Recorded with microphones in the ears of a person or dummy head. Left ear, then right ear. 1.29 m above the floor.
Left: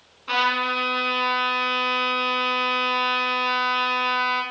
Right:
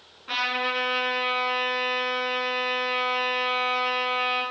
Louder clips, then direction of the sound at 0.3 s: Left 4 dB; 30° left (ahead or behind).